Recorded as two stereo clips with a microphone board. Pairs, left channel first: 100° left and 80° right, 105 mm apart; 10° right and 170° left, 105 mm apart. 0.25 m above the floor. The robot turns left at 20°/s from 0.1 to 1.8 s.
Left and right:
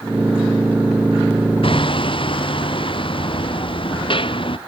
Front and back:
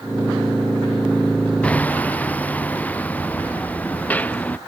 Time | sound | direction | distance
1.6 | hammering | 65° left | ?